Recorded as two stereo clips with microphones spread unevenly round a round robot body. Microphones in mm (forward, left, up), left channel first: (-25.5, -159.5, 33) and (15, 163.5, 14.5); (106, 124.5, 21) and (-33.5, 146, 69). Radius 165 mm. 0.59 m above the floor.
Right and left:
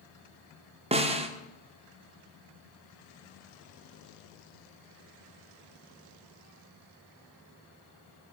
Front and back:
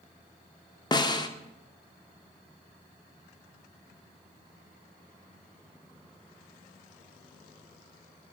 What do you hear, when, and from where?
0.9 s a snare drum: 20° left, 1.7 m